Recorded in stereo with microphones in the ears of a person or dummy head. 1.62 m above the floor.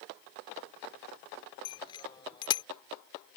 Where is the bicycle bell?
30° left (ahead or behind).